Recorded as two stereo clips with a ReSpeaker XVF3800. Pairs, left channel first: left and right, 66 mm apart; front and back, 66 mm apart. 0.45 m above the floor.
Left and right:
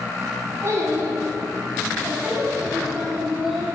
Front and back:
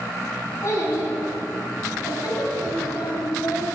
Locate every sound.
0.6 s a child speaking: 45° right, 3 m; by 3.6 s straight ahead, 2.5 m